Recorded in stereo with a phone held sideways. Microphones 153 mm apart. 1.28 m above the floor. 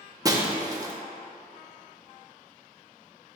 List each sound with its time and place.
0.2 s breaking glass: 25° right (ahead or behind), 0.7 m